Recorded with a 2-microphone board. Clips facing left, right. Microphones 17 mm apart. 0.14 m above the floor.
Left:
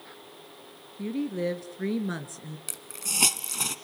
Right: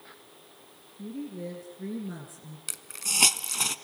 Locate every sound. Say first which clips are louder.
1.0 s a woman speaking: left 8 dB; 50° left (ahead or behind), 1.9 m
2.7 s a hiss: right 3 dB; 10° right (ahead or behind), 0.9 m